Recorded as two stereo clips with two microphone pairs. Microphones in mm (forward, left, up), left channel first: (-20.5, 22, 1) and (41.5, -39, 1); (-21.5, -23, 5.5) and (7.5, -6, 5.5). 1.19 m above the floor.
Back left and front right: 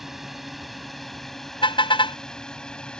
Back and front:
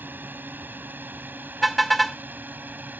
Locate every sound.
0.0 s a drone: 45° left; by 3.0 s 55° left
1.6 s a car horn: 125° left